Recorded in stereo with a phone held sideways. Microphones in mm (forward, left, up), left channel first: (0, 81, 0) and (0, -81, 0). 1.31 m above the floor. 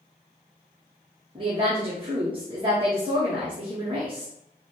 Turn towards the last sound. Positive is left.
turn(degrees=-30)  # may be behind; listen again after turning